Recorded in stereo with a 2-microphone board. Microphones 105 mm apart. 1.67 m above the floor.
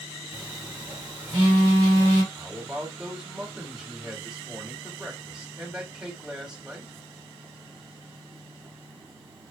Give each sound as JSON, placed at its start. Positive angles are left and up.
{"t": 0.3, "sound": "a phone buzzing", "side_deg": -45, "distance_m": 1.2}
{"t": 2.3, "sound": "a man speaking", "side_deg": -10, "distance_m": 1.5}